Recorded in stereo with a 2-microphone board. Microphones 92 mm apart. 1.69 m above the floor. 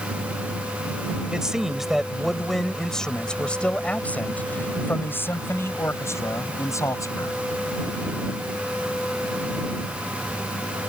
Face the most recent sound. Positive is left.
turn(degrees=35)  # may be behind; listen again after turning